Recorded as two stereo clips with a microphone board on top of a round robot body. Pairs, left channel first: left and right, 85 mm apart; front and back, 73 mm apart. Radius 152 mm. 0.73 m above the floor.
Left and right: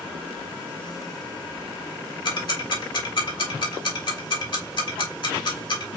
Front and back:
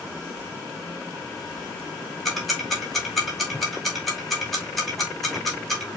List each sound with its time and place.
2.2 s ticking: 90° left, 2 m